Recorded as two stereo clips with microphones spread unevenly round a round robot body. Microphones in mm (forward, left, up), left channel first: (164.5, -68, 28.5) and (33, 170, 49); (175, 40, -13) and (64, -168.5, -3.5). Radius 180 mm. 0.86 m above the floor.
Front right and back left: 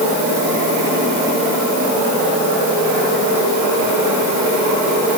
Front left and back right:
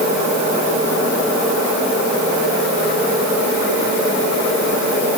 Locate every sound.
Only background noise.